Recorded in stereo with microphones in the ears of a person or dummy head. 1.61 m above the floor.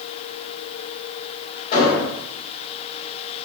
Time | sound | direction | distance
1.7 | an explosion | 50° left (ahead or behind) | 1.2 m